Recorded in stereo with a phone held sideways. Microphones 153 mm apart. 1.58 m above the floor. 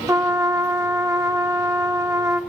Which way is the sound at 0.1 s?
20° right (ahead or behind).